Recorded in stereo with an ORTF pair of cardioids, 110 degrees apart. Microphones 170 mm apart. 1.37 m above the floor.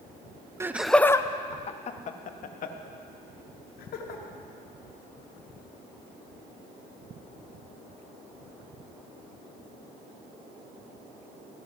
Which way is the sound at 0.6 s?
15° right.